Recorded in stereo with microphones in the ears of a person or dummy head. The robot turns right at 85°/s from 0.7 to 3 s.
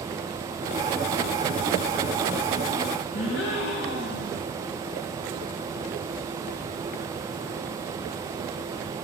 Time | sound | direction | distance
3.1 | a gasp | 60° left (ahead or behind) | 3 m